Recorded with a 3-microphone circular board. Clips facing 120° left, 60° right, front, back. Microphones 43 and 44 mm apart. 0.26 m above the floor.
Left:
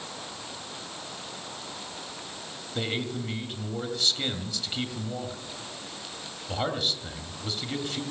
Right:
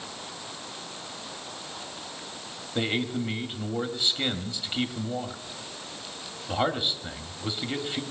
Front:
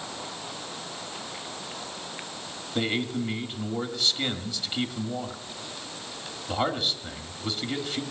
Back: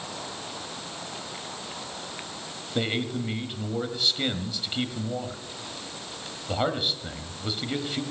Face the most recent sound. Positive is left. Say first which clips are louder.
# right 3 dB, even
turn(degrees=-105)